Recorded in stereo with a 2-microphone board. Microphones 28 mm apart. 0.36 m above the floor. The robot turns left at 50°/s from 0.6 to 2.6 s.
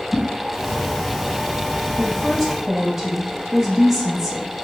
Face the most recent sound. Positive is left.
turn(degrees=-15)